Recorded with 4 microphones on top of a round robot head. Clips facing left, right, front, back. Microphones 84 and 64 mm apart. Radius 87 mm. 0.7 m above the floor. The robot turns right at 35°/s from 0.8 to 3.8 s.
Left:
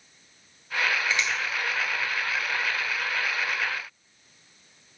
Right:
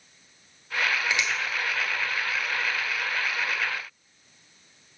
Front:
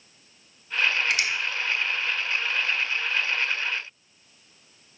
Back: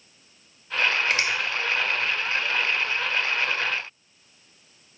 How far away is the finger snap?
About 1.1 m.